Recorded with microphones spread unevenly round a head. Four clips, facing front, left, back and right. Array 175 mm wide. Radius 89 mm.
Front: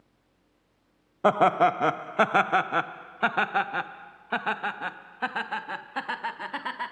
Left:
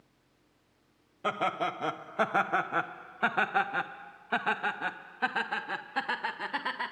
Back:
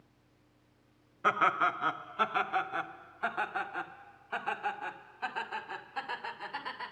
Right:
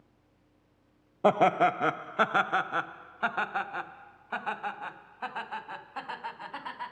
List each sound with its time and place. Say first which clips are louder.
1.2 s laughter: right 8 dB, front 8 dB; 40° right, 0.8 m; by 6.9 s 40° left, 3.5 m